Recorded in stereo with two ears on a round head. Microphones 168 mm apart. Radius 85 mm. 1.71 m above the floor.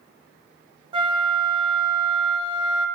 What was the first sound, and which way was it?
A flute, 25° right (ahead or behind).